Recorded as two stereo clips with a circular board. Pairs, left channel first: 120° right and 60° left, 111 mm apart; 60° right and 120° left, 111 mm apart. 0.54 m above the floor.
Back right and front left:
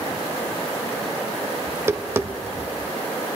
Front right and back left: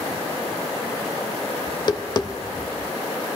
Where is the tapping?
5° right, 0.5 m.